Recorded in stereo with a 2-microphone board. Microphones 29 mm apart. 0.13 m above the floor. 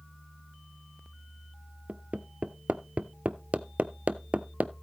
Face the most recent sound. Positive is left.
turn(degrees=-60)  # may be behind; listen again after turning